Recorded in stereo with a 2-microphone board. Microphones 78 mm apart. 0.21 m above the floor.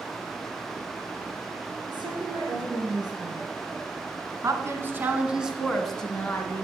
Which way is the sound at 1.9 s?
75° right (ahead or behind).